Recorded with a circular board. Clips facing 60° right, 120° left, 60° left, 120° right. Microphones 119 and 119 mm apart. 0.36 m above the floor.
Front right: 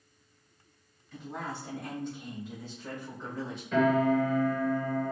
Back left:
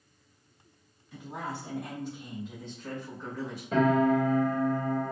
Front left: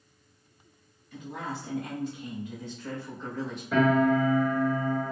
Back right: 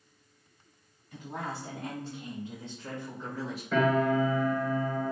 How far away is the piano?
About 1.0 m.